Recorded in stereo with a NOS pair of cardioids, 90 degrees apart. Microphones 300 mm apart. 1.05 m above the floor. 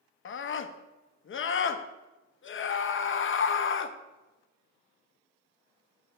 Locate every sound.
0.2 s a scream: 40° left, 0.8 m